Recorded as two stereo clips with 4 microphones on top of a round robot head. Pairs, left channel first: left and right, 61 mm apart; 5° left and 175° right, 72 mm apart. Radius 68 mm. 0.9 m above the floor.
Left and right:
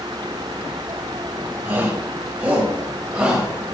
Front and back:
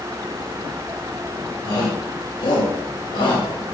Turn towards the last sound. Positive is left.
turn(degrees=-15)